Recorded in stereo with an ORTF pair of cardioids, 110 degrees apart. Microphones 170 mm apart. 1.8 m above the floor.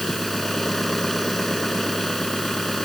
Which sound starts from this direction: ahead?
An engine running, at 0.0 s.